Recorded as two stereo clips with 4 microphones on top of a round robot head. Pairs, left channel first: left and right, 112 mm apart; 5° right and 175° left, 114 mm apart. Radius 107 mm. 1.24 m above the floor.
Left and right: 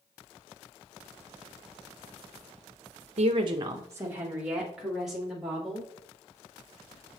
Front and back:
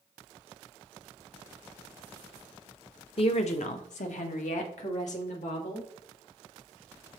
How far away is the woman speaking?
About 0.8 m.